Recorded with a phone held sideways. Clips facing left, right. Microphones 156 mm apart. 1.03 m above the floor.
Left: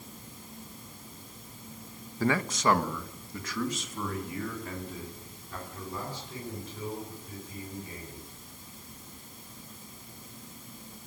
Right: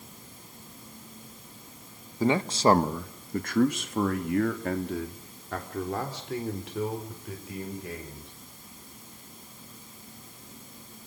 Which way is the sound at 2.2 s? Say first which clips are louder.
Right 4 dB; 15° right (ahead or behind).